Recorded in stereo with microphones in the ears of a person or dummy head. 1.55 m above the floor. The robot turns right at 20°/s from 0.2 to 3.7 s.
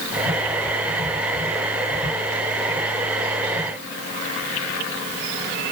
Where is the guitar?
I don't hear a guitar.